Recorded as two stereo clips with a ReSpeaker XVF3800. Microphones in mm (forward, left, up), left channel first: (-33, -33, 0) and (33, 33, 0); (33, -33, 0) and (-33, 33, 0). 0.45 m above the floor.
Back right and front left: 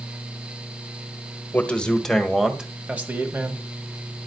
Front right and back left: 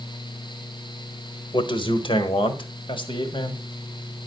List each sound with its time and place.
1.5 s a man speaking: 65° right, 1.5 m; by 3.6 s 20° right, 2 m